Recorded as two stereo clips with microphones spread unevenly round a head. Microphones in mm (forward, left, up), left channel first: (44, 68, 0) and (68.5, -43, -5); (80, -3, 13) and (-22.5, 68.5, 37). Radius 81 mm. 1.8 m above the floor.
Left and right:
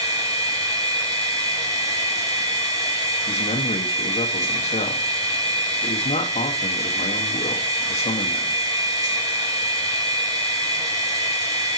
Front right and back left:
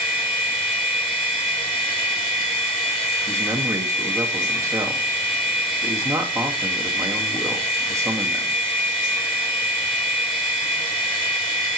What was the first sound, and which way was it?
A machine running, 20° right.